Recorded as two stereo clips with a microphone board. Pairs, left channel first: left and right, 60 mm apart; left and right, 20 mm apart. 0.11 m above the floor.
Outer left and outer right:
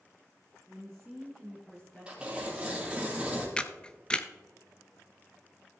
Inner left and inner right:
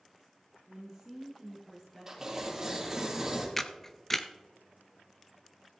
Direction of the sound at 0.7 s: 15° right (ahead or behind).